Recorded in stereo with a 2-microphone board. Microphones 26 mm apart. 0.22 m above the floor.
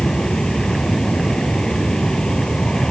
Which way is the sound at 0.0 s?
35° left (ahead or behind).